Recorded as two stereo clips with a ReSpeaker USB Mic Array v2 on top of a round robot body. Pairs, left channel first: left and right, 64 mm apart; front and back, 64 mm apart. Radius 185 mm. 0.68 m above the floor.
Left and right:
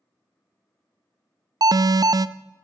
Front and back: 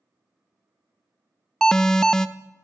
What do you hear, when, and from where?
1.6 s an alarm: 80° right, 0.5 m